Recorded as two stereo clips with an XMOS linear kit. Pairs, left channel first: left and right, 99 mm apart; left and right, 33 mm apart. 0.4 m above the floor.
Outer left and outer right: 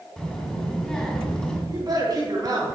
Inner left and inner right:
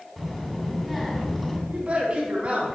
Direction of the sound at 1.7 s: 45° right (ahead or behind).